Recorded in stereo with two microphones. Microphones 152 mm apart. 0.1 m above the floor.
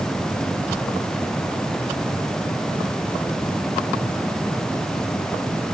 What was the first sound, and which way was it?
Only background noise.